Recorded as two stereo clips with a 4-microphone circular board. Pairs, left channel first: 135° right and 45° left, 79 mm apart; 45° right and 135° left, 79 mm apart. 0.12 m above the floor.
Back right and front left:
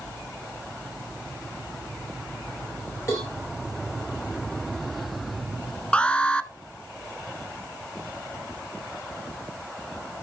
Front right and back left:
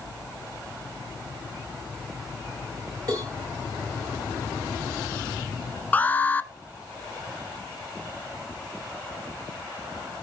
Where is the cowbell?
175° left, 8.5 m.